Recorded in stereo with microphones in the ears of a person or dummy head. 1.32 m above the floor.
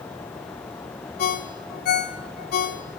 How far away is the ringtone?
About 1.9 m.